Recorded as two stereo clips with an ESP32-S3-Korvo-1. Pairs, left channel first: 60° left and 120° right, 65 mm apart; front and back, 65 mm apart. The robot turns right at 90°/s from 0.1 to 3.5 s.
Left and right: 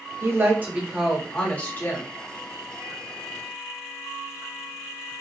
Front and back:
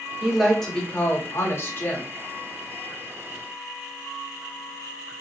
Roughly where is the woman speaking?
Behind right.